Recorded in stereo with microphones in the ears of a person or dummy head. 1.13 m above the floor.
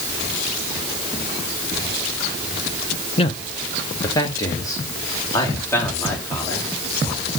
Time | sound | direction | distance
3.2 | a man speaking | 30° left (ahead or behind) | 0.9 m